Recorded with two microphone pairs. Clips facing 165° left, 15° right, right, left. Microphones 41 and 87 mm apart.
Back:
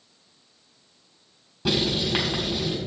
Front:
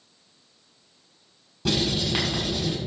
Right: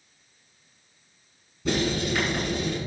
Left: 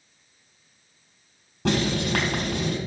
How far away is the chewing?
No chewing in this recording.